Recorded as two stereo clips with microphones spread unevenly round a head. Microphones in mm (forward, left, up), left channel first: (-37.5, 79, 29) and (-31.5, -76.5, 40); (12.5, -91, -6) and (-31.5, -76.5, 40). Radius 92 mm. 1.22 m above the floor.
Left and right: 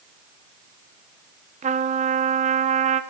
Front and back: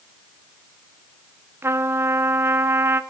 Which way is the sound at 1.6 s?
135° right.